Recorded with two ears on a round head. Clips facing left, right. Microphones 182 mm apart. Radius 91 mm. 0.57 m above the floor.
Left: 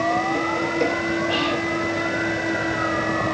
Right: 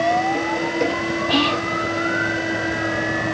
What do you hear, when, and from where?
1.3 s whispering: 65° right (ahead or behind), 2.5 m